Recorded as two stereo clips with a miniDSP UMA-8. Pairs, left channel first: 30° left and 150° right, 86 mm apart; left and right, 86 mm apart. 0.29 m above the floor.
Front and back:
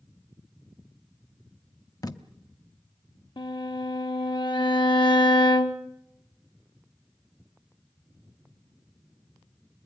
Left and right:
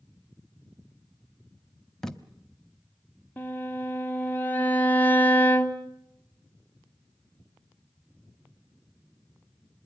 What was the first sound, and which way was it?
Tape being pulled, 5° left.